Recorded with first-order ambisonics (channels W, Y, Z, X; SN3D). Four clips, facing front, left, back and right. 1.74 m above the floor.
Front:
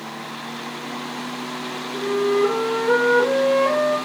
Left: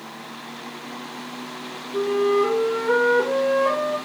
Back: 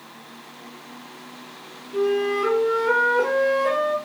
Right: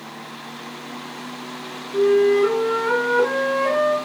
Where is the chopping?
I don't hear chopping.